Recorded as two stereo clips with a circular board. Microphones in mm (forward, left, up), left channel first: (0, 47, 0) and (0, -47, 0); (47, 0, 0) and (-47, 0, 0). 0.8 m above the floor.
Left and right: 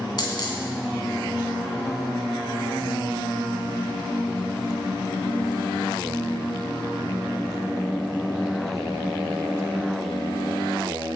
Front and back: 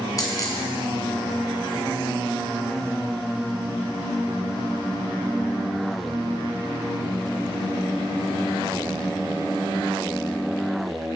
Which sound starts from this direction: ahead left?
A dropped coin, at 0.2 s.